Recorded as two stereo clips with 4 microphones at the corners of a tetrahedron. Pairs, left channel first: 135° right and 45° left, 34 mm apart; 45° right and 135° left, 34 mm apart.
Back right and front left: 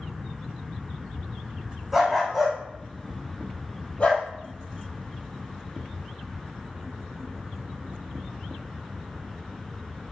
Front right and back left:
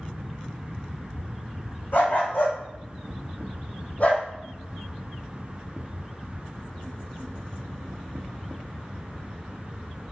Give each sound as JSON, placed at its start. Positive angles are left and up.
{"t": 1.9, "sound": "a dog barking", "azimuth_deg": -40, "distance_m": 2.5}